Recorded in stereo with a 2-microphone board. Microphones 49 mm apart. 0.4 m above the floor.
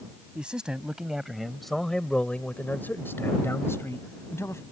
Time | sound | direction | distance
0.3 | a man speaking | 20° right (ahead or behind) | ?